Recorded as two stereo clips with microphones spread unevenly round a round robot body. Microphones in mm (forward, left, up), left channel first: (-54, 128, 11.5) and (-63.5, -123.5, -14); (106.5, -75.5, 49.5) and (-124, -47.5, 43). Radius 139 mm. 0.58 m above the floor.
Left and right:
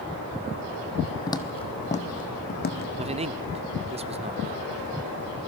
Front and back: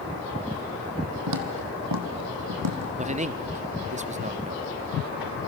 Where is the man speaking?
140° right, 1.0 m.